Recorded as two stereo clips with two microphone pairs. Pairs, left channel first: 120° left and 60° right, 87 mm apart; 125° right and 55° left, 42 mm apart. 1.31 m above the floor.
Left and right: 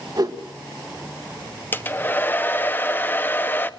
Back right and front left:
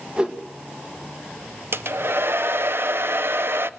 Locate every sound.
0.2 s a whoosh: 15° right, 1.7 m
1.7 s a hair dryer: 55° left, 0.8 m